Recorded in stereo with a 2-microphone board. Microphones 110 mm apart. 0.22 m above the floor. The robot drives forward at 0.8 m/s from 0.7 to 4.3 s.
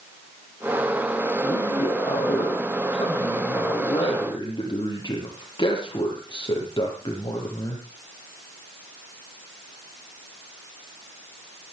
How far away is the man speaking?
About 5.5 m.